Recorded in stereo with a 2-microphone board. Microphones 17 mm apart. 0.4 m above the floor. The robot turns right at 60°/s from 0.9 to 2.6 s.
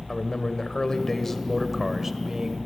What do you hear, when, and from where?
0.1 s a man speaking: 140° left, 1.7 m; by 2.6 s 125° right, 1.7 m